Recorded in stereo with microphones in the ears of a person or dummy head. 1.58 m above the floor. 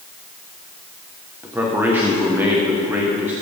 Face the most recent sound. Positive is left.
turn(degrees=-10)  # may be behind; listen again after turning